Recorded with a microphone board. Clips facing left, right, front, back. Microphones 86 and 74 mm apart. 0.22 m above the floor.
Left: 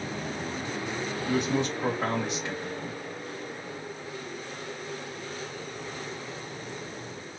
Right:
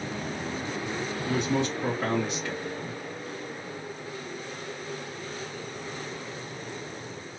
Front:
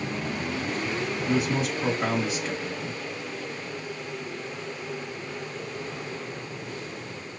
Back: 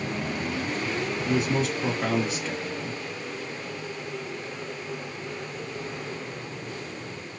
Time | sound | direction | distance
1.2 | a man speaking | 60° left | 1.2 m